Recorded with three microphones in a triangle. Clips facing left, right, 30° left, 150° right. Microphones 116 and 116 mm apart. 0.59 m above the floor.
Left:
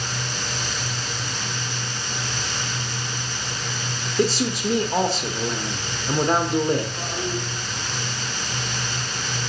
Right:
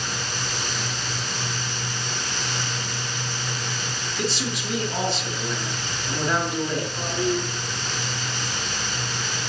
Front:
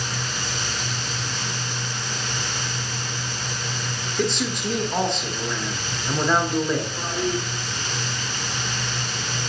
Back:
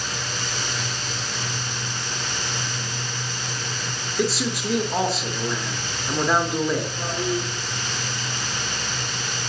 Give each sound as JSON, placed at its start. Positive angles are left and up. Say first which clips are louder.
{"t": 4.2, "sound": "a man speaking", "louder": "left 7 dB, back 1 dB", "azimuth_deg": 125, "distance_m": 0.9}
{"t": 7.0, "sound": "a toilet flushing", "louder": "right 4 dB, even", "azimuth_deg": -25, "distance_m": 4.0}